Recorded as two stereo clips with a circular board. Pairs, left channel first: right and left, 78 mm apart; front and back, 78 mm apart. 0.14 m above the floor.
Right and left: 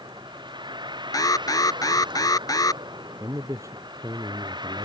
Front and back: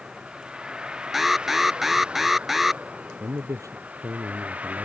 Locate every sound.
0.0 s a vehicle: 100° left; by 4.9 s 105° left
1.1 s an alarm: 95° right
3.2 s a man speaking: 135° left